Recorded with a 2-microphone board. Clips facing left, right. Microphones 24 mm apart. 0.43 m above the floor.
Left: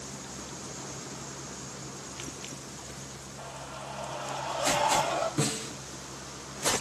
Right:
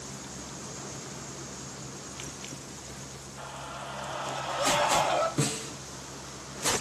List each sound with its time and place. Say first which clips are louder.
3.4 s a scream: right 2 dB; 35° right (ahead or behind), 5.5 m; by 5.3 s 40° right (ahead or behind), 7 m
5.4 s a snare drum: even; centre (ahead or behind), 3 m